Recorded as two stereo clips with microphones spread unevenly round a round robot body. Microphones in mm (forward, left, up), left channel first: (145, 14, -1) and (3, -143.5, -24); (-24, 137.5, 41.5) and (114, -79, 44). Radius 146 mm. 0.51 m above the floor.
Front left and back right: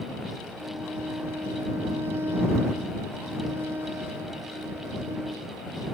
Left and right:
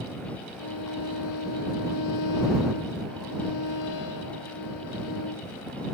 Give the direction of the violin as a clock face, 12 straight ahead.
7 o'clock.